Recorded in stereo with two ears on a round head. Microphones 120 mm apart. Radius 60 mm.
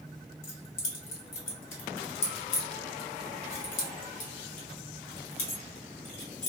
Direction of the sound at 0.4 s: 70° left (ahead or behind).